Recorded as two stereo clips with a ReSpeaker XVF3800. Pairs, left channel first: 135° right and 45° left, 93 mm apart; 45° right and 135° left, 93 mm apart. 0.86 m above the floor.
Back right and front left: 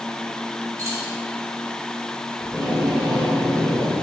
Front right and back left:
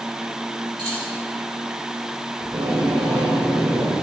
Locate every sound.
0.8 s keys jangling: 100° left, 2.5 m
2.4 s tape being pulled: 130° left, 2.5 m